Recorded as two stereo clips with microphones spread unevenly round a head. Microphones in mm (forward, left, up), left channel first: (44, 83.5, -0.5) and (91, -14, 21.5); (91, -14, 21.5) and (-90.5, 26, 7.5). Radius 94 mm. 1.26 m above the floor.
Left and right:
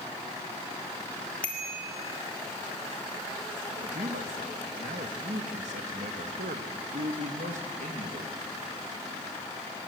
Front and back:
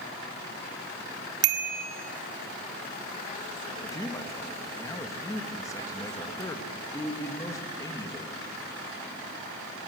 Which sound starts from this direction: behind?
A bicycle bell, at 1.4 s.